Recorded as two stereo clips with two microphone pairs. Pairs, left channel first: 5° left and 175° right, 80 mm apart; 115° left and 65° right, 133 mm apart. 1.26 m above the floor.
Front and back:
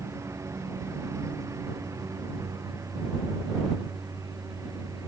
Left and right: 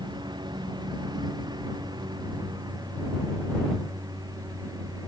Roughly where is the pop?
I don't hear a pop.